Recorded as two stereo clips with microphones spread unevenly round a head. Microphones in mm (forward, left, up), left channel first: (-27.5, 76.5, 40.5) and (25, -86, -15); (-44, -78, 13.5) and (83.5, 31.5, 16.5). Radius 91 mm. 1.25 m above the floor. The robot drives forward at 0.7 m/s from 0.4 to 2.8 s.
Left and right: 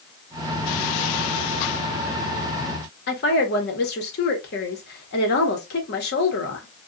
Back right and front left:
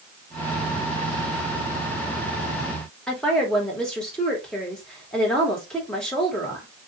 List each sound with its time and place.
3.1 s a woman speaking: 135° left, 1.1 m